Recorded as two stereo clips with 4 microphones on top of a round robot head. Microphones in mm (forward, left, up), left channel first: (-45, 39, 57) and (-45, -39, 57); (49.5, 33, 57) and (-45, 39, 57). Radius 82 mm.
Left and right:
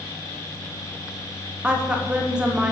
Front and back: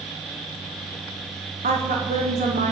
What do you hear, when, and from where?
1.6 s a woman speaking: 170° right, 0.9 m